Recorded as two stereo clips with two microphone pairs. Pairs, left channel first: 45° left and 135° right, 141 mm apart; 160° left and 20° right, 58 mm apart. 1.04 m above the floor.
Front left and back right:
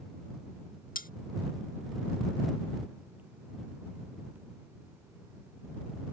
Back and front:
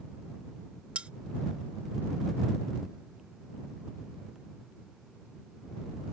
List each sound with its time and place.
0.9 s cutlery clinking: 50° left